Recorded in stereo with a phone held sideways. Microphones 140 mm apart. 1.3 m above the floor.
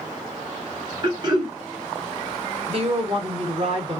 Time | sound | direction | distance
1.0 | throat clearing | 30° right (ahead or behind) | 1.1 m
2.7 | a woman speaking | 45° right (ahead or behind) | 1.0 m